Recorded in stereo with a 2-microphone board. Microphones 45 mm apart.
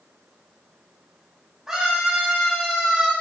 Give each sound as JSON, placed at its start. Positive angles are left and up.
{"t": 1.7, "sound": "a scream", "side_deg": -10, "distance_m": 6.0}